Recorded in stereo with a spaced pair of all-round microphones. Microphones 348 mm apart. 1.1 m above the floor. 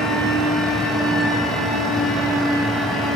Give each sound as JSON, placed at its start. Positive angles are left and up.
{"t": 0.0, "sound": "a fan", "side_deg": 0, "distance_m": 0.8}